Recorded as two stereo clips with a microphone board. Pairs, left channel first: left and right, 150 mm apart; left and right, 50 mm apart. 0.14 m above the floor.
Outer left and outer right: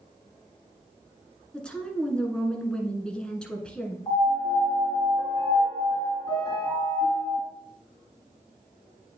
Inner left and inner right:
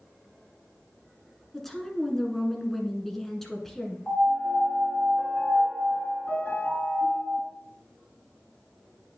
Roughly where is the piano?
Left.